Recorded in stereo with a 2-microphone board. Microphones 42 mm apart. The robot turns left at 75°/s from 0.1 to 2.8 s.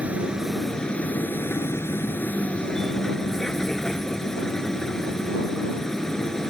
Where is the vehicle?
145° right; by 6.5 s 15° left.